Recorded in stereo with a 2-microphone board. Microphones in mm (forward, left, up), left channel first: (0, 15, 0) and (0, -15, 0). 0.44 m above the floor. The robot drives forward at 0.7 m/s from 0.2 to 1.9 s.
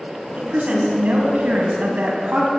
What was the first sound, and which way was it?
A woman speaking, 60° right (ahead or behind).